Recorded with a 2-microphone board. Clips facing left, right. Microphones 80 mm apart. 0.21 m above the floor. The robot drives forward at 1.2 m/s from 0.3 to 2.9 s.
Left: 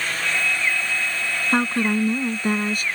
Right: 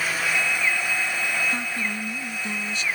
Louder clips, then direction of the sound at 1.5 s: Left 8 dB; 55° left (ahead or behind).